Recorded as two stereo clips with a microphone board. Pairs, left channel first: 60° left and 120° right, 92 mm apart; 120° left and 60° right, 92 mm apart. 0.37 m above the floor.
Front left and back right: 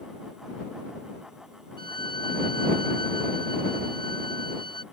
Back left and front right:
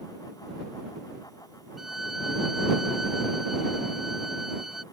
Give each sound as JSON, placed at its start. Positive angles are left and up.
{"t": 1.8, "sound": "a violin", "azimuth_deg": 25}